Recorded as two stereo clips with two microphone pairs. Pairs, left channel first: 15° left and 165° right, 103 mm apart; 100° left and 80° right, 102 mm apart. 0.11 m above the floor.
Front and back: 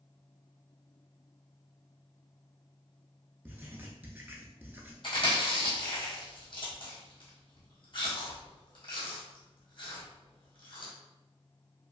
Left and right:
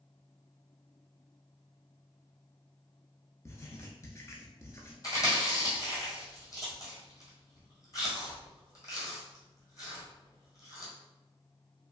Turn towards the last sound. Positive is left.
turn(degrees=50)